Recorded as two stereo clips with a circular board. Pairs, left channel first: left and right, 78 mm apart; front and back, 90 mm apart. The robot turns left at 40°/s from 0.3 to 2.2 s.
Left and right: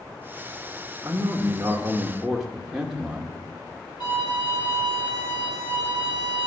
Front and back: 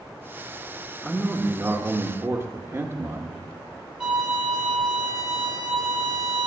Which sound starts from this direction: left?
A violin, at 4.0 s.